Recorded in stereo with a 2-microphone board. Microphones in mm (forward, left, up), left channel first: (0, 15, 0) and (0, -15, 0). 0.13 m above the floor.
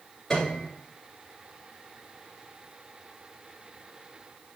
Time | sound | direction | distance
0.3 | a piano | 15° left (ahead or behind) | 2.0 m